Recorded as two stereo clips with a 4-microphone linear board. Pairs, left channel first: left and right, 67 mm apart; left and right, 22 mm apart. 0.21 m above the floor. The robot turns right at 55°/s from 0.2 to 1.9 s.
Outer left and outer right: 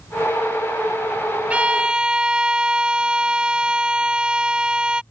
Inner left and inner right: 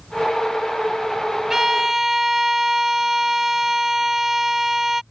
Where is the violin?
20° right (ahead or behind); by 5.0 s 15° right (ahead or behind).